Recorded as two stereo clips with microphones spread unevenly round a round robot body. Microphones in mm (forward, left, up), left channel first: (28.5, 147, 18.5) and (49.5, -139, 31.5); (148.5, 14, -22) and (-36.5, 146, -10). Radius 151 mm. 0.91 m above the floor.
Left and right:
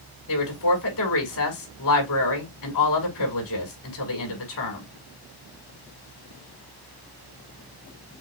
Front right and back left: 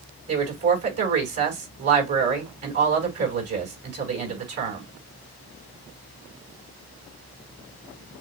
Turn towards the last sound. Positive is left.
turn(degrees=140)